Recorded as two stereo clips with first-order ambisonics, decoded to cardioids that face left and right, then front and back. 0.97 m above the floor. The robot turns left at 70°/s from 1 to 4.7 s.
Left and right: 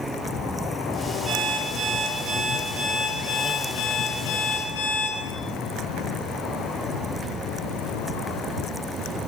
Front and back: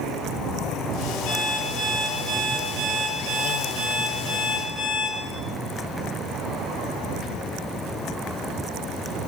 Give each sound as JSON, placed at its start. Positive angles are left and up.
{"t": 1.3, "sound": "an alarm clock", "azimuth_deg": -15, "distance_m": 7.5}